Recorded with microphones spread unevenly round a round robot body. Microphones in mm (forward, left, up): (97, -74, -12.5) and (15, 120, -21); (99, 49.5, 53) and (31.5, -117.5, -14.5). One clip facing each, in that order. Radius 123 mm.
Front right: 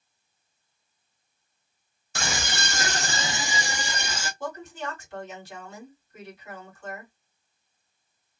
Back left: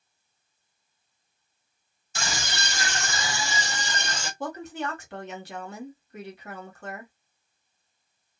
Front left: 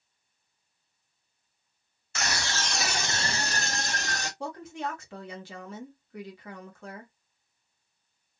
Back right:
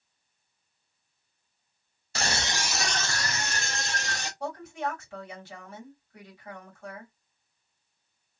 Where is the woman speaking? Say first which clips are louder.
Back left 3 dB, back right 4 dB; 105° left, 1.5 m.